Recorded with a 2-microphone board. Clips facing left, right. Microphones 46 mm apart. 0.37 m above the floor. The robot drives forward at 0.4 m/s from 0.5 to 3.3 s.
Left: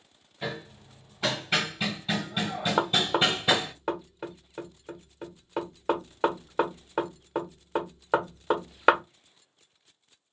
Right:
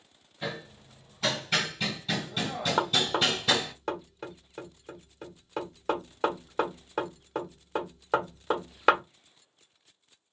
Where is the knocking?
10° left (ahead or behind), 0.7 m.